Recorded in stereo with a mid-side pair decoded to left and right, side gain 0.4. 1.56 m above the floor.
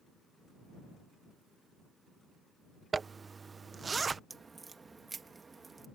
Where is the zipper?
35° right.